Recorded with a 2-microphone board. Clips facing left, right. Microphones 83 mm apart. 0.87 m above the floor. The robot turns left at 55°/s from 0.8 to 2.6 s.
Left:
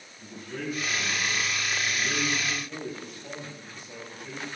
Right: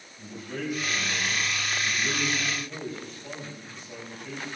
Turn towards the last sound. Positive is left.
turn(degrees=175)